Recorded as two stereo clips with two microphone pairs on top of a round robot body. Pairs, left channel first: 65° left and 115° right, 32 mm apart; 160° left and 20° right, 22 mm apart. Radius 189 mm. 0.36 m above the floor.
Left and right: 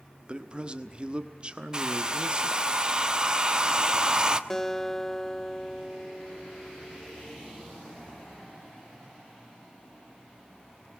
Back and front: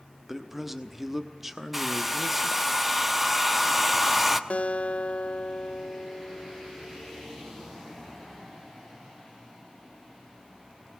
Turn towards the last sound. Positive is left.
turn(degrees=145)